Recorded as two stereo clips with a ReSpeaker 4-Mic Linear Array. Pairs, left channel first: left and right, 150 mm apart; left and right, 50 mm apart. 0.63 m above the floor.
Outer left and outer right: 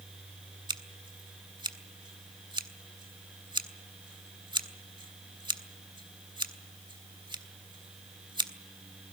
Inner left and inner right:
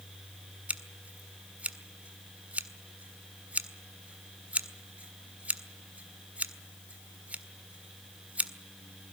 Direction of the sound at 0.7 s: 30° right (ahead or behind).